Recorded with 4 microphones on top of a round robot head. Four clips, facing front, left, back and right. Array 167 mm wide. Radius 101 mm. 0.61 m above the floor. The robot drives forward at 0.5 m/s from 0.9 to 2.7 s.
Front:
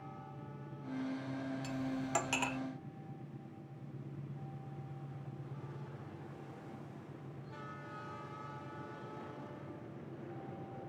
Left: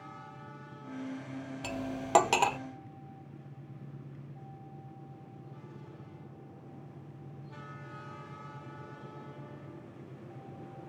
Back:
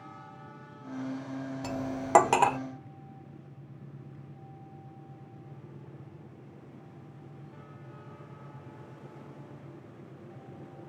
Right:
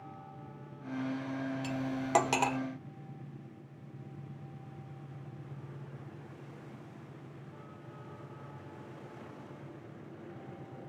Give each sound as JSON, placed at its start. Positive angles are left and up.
{"t": 1.6, "sound": "cutlery clinking", "azimuth_deg": 155}